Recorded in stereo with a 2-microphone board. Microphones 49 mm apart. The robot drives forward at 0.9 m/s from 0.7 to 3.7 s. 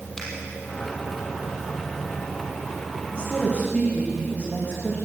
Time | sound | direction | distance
0.2 | a finger snap | 5° left (ahead or behind) | 5 m
3.1 | a woman speaking | 25° left (ahead or behind) | 7 m